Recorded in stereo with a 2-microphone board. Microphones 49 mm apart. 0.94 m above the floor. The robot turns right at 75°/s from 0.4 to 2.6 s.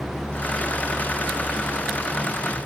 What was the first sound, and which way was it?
Only background noise.